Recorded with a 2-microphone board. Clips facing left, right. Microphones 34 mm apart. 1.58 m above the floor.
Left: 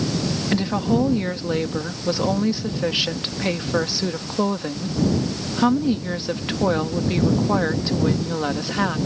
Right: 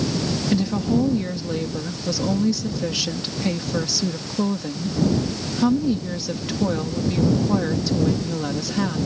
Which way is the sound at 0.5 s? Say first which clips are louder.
Left 1 dB; 25° left (ahead or behind).